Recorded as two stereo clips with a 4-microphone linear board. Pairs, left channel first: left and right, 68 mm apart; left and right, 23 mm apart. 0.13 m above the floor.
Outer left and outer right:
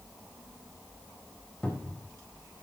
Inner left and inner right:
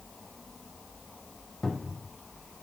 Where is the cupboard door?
15° left (ahead or behind), 3 m.